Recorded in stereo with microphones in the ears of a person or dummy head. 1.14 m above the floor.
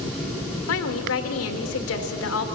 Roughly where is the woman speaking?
Left.